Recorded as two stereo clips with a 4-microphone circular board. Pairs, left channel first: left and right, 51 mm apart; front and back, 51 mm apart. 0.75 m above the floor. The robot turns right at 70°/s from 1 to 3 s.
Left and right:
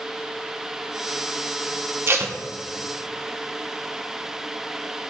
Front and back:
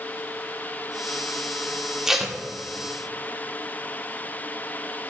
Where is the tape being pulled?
105° right, 0.8 m; by 2.4 s 80° right, 0.8 m.